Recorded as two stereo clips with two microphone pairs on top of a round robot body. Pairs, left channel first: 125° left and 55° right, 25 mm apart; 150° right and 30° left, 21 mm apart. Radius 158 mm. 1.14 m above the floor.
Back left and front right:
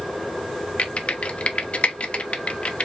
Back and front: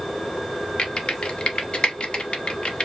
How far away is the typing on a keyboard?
About 0.8 m.